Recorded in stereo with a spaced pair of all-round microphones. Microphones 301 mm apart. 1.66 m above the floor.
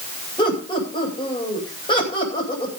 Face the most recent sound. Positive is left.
turn(degrees=15)  # may be behind; listen again after turning